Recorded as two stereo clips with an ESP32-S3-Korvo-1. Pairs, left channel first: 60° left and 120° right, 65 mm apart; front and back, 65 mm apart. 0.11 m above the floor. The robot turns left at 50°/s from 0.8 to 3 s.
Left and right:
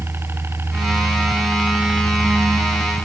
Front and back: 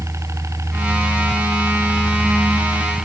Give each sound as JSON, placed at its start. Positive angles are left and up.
{"t": 0.0, "sound": "a helicopter", "azimuth_deg": -160}